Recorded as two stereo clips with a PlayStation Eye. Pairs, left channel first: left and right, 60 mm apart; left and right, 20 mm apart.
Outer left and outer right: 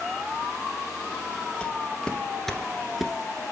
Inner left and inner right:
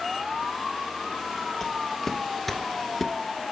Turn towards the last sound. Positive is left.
turn(degrees=-5)  # may be behind; listen again after turning